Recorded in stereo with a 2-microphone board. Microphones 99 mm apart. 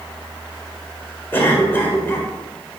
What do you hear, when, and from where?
1.3 s a cough: 20° left (ahead or behind), 1.7 m